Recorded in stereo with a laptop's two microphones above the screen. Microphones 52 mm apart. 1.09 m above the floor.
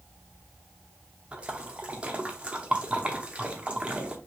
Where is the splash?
20° right (ahead or behind), 0.7 m.